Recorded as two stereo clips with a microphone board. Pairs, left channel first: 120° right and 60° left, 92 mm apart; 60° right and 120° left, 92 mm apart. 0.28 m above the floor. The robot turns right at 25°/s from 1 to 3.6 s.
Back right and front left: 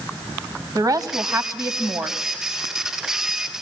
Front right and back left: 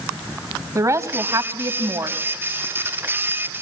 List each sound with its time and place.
0.8 s a woman speaking: 80° left, 1.7 m; by 2.2 s 110° left, 1.7 m